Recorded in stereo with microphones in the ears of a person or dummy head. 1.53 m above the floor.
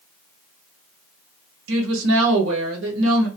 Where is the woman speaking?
75° right (ahead or behind), 1.1 m.